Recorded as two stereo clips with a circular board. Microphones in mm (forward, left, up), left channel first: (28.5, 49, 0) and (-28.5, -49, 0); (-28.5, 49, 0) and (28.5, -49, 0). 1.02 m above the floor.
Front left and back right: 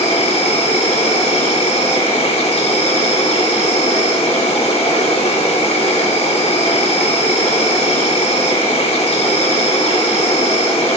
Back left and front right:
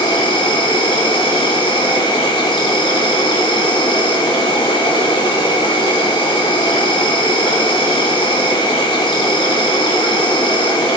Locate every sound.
0.0 s an insect: 80° left, 3.5 m